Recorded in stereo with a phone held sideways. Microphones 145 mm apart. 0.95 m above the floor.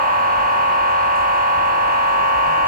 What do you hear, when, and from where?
0.0 s a machine running: 75° right (ahead or behind), 2.5 m